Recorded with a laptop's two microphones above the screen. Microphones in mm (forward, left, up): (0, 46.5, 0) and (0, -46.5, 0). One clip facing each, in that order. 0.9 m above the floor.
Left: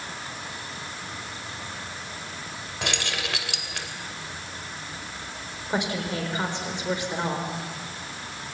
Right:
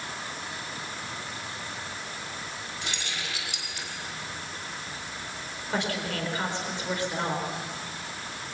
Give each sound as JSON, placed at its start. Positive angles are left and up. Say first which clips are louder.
{"t": 2.8, "sound": "keys jangling", "louder": "left 8 dB", "side_deg": 85, "distance_m": 3.0}
{"t": 5.7, "sound": "a woman speaking", "louder": "left 2 dB", "side_deg": 20, "distance_m": 4.0}